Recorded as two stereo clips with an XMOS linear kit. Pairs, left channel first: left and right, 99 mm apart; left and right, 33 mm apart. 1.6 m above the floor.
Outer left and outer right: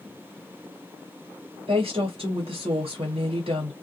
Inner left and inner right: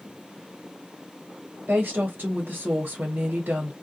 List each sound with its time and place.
1.7 s a woman speaking: 75° right (ahead or behind), 1.2 m